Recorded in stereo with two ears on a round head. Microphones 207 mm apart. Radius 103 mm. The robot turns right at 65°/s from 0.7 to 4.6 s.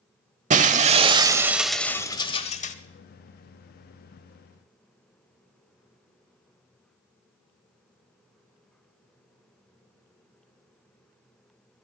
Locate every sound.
0.5 s breaking glass: 65° right, 1.0 m; by 2.8 s 70° left, 1.0 m